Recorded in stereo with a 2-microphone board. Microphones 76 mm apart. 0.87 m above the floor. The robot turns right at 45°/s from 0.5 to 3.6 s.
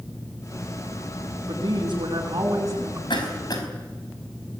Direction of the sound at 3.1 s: 75° left (ahead or behind).